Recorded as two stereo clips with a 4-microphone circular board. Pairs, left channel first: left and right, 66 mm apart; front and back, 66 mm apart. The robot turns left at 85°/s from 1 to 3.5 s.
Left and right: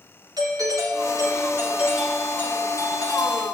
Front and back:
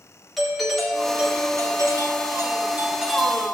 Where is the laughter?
I don't hear laughter.